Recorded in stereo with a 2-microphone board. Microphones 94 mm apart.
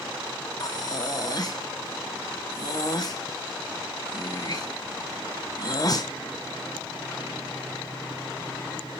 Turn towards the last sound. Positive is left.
turn(degrees=40)  # may be behind; listen again after turning